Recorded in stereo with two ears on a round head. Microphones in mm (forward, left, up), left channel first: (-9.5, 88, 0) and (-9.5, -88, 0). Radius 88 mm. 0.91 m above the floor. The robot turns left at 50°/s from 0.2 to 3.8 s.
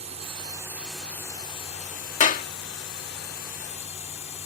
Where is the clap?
40° left (ahead or behind); by 2.5 s 50° left (ahead or behind).